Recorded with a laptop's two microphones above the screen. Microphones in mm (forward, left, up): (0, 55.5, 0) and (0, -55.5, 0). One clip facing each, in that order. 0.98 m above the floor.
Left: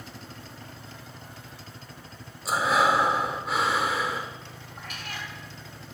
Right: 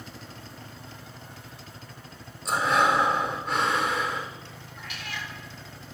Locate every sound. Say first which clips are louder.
2.5 s breathing: even; 5° left (ahead or behind), 0.7 m
4.8 s a cat meowing: even; 45° left (ahead or behind), 1.1 m